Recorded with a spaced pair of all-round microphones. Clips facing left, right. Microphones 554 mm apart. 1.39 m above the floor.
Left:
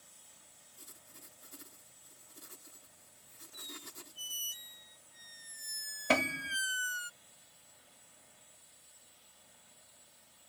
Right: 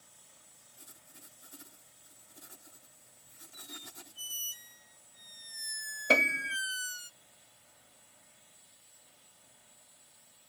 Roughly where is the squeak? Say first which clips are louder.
Even; centre.